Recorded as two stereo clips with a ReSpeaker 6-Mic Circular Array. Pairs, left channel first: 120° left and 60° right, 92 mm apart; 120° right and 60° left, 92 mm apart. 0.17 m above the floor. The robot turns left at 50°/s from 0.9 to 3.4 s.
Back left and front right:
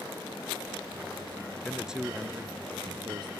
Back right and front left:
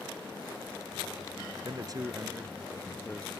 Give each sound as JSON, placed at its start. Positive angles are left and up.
{"t": 1.6, "sound": "a man speaking", "azimuth_deg": 35}